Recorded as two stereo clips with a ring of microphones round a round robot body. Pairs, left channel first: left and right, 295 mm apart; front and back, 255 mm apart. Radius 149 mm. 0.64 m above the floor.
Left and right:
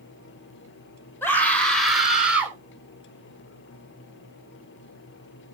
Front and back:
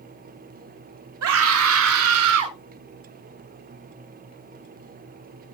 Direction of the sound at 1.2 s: 175° left.